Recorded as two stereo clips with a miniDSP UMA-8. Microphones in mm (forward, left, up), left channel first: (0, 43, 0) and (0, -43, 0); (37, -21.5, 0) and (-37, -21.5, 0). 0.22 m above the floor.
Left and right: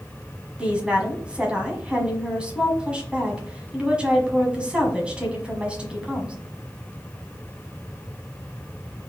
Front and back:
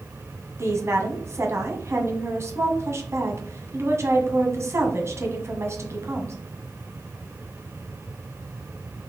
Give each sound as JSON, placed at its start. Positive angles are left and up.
{"t": 0.6, "sound": "a woman speaking", "azimuth_deg": -160, "distance_m": 1.3}